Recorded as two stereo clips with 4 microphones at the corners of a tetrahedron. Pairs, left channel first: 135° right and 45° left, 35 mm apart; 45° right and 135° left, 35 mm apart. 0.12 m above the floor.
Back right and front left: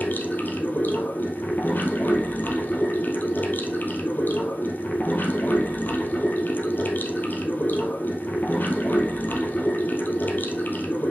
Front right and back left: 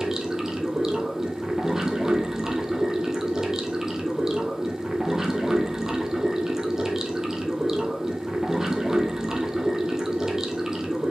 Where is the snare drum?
No snare drum in this recording.